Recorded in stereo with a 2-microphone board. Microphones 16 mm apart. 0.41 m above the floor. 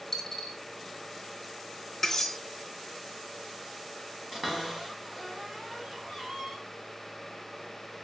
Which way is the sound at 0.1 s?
35° left (ahead or behind).